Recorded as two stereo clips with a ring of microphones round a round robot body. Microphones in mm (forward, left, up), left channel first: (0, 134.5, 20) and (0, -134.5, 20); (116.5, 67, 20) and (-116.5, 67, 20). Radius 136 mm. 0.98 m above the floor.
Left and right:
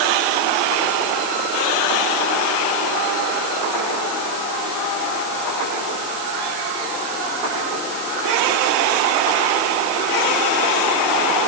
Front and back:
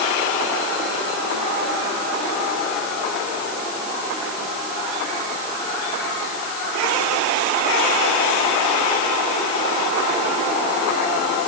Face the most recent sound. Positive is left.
No sound to turn to.